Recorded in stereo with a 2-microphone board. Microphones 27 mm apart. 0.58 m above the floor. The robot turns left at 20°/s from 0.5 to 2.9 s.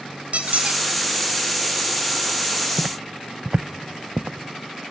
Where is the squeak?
60° right (ahead or behind), 1.7 m; by 0.8 s 55° right (ahead or behind), 1.7 m.